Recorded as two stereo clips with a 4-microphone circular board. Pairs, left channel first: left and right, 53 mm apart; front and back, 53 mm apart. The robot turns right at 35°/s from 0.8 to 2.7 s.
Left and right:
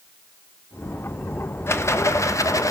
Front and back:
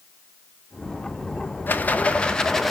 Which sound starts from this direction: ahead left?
A rattle, at 1.7 s.